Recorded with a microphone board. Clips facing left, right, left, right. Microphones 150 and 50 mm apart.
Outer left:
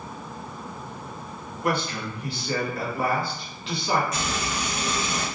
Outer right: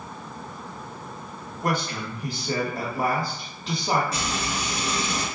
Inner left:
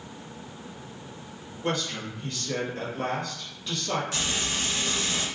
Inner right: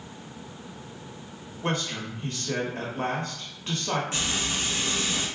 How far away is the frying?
About 1.1 m.